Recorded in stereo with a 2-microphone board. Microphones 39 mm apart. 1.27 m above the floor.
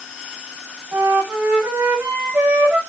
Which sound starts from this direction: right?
A flute, at 0.9 s.